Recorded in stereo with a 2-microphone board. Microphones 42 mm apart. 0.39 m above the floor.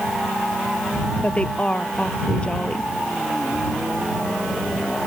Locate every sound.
1.2 s a woman speaking: 25° left (ahead or behind)